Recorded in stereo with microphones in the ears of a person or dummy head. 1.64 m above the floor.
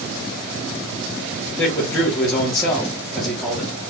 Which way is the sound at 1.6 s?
15° left (ahead or behind).